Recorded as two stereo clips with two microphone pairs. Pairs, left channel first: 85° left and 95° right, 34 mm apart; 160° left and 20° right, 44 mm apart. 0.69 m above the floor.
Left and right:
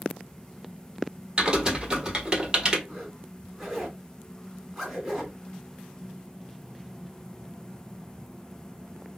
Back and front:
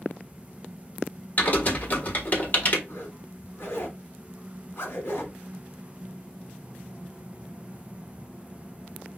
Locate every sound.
1.4 s typing on a keyboard: 155° right, 1.3 m
2.9 s a zipper: 175° right, 1.8 m